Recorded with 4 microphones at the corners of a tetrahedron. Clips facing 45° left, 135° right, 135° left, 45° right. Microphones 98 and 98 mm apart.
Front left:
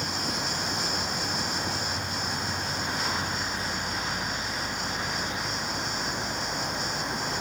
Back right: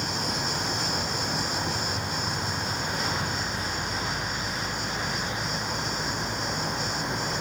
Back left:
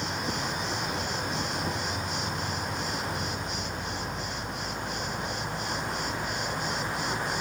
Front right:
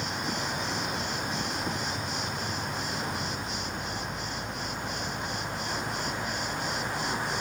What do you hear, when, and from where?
0.0 s an insect: 170° right, 3.5 m